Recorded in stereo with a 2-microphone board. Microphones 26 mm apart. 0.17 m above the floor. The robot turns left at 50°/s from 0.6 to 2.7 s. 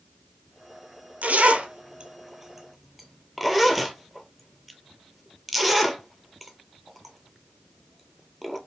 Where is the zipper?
75° right (ahead or behind), 0.5 m; by 8.6 s centre (ahead or behind), 0.5 m.